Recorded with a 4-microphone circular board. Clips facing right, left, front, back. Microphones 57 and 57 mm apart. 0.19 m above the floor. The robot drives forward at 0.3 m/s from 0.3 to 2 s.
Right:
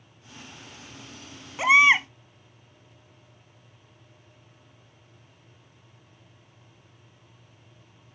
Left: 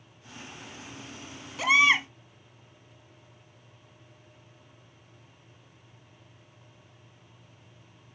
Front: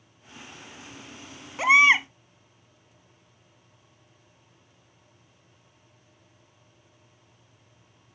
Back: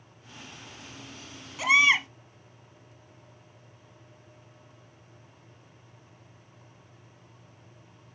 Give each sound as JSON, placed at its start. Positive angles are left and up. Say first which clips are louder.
{"t": 1.6, "sound": "a baby crying", "louder": "right 4 dB, front 4 dB", "azimuth_deg": -35, "distance_m": 0.6}